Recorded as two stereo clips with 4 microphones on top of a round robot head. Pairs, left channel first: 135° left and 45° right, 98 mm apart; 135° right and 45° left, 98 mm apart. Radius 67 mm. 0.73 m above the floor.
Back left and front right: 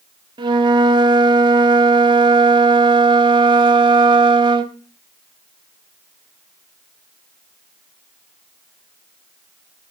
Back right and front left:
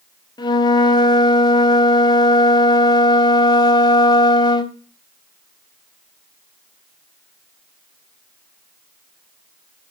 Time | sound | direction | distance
0.4 | a flute | 90° right | 1.2 m